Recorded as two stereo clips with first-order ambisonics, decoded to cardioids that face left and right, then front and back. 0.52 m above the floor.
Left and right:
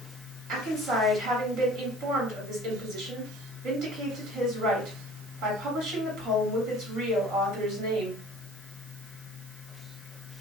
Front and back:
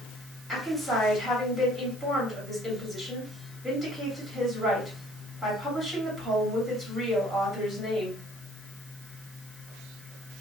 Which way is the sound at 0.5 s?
90° right.